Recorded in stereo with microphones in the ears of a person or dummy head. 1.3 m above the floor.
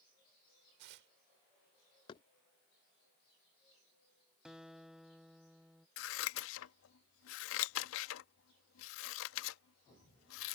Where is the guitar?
5° right (ahead or behind).